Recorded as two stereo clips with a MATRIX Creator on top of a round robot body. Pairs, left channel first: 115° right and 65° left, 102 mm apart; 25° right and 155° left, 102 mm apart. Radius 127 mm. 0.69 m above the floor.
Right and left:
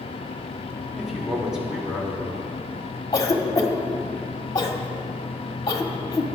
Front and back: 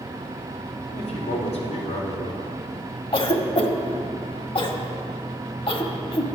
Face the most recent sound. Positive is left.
turn(degrees=-55)